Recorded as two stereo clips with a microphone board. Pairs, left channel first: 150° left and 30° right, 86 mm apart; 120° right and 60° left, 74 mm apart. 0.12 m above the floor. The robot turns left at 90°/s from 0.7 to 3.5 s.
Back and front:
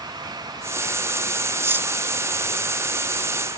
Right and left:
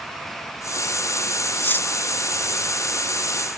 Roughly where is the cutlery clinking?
Right.